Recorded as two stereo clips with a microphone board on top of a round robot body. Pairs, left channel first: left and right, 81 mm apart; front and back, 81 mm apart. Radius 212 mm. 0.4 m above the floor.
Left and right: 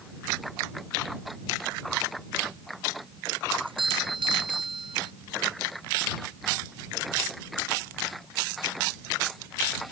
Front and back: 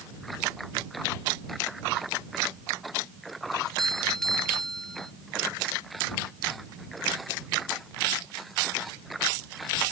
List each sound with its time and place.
3.6 s a doorbell: 85° right